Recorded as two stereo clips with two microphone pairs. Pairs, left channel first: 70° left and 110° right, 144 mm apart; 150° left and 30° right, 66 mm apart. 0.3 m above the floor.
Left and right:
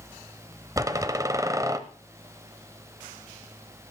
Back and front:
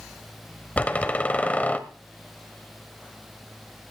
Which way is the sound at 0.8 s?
155° right.